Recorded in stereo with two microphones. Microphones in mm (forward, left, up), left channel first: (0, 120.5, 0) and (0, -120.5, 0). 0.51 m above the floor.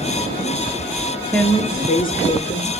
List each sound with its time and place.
1.3 s a woman speaking: 10° left (ahead or behind), 1.1 m; by 2.7 s 50° left (ahead or behind), 1.7 m